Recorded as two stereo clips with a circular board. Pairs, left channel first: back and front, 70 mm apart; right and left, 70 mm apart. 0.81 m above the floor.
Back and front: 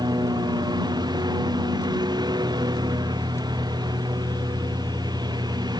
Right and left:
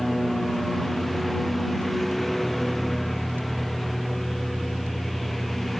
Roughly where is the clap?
I don't hear a clap.